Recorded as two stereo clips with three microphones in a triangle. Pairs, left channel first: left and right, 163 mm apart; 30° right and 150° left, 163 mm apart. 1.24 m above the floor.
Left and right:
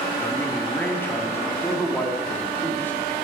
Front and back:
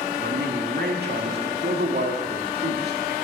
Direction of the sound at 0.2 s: 165° left.